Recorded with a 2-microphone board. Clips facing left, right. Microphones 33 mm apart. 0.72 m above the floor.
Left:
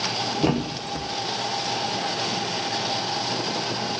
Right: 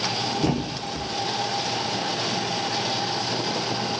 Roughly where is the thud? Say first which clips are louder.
Left 1 dB; left.